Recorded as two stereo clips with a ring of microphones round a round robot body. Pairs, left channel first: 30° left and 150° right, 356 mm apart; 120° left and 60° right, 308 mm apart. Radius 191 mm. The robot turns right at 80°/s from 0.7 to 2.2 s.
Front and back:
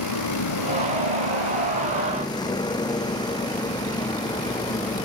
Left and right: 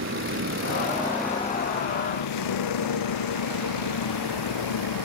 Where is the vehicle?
10° right; by 5.0 s 110° left.